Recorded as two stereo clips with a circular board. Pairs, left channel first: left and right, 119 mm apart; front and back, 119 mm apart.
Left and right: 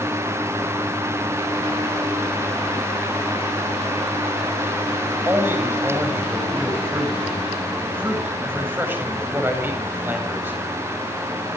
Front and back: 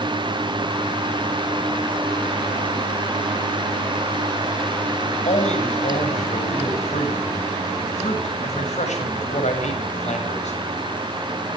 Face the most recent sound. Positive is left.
turn(degrees=-15)